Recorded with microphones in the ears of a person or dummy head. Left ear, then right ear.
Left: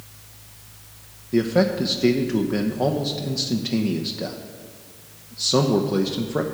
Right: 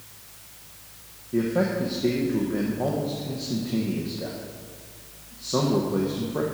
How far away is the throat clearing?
No throat clearing in this recording.